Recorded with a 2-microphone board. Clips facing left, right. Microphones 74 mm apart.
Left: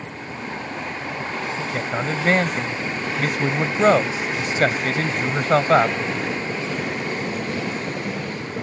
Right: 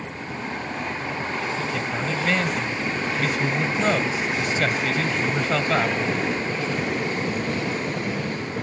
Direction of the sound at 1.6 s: 40° left (ahead or behind).